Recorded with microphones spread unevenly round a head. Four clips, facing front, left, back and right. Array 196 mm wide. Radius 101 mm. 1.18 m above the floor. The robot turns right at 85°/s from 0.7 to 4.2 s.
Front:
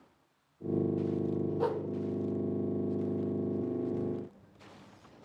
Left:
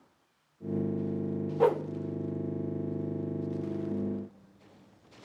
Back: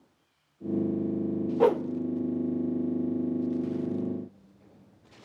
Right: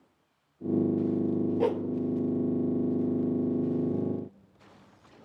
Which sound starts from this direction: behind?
A whoosh, at 1.6 s.